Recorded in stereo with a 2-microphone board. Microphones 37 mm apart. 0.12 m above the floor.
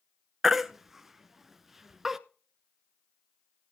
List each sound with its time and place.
0.4 s a baby crying: 5° right (ahead or behind), 0.6 m